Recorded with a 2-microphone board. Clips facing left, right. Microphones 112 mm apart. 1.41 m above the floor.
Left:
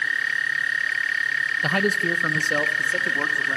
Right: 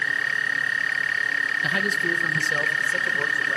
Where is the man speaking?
55° left (ahead or behind), 1.0 m.